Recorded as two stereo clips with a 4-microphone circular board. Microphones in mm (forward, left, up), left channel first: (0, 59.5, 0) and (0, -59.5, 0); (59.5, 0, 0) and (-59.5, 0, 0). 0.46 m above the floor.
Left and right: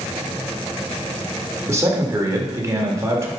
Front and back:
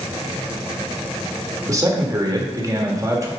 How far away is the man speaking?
About 1.5 m.